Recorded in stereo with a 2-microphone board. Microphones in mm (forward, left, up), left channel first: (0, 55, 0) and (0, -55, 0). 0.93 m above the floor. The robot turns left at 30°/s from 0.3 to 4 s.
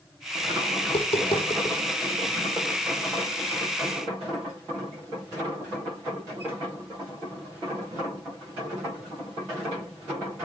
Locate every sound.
0.8 s tapping: 60° left (ahead or behind), 5.5 m; by 1.8 s 30° left (ahead or behind), 5.5 m